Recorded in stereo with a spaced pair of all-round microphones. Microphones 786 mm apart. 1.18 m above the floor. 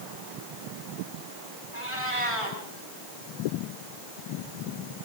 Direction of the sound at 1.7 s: 40° right (ahead or behind).